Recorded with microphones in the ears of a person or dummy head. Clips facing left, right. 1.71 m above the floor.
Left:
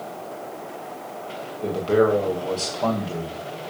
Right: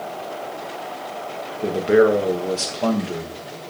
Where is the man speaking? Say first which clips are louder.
Right 4 dB; 25° right (ahead or behind), 1.3 m.